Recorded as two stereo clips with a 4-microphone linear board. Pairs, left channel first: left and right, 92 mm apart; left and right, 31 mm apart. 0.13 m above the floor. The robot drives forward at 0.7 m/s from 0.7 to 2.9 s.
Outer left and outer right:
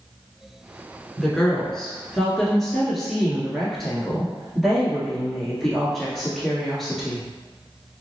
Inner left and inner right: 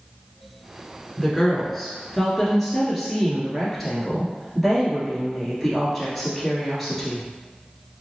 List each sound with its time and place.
1.2 s a woman speaking: 5° left (ahead or behind), 1.3 m